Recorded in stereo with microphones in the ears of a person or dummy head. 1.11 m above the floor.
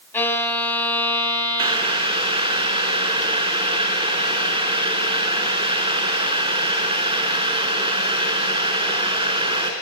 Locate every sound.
0.1 s a violin: 15° left (ahead or behind), 4 m
1.6 s boiling: 25° right (ahead or behind), 3 m